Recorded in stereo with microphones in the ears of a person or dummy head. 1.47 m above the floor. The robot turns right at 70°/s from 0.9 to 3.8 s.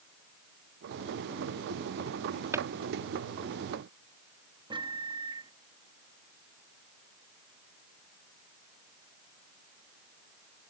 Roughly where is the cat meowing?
No cat meowing in this recording.